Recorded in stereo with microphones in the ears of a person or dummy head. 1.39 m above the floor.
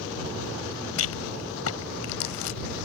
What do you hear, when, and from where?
1.0 s a rattle: 75° left (ahead or behind)